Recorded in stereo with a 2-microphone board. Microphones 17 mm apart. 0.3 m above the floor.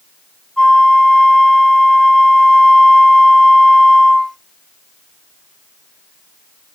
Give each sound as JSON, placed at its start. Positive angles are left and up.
{"t": 0.6, "sound": "a flute", "side_deg": 35, "distance_m": 1.1}